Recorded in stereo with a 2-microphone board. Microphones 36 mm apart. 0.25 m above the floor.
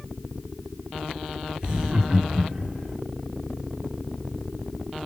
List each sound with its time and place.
1.6 s laughter: 15° right (ahead or behind), 1.8 m; by 3.0 s 25° left (ahead or behind), 1.3 m